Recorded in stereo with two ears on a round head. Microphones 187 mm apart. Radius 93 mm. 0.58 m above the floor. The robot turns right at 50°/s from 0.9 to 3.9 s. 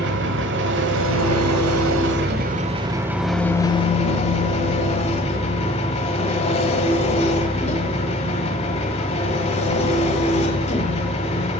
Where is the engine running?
120° right, 1.2 m; by 11.6 s 30° left, 1.2 m.